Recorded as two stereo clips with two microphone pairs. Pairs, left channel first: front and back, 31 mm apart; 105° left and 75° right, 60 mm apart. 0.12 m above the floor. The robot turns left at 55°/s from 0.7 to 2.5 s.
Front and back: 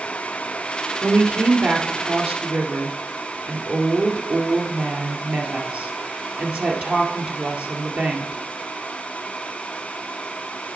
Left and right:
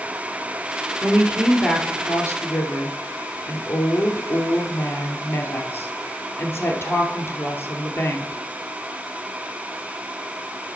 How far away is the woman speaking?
About 2 m.